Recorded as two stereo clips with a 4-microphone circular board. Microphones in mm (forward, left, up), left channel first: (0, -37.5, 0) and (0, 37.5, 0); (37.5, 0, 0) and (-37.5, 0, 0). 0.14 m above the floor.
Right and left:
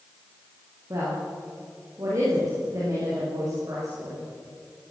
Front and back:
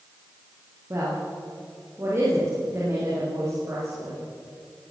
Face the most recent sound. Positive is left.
turn(degrees=130)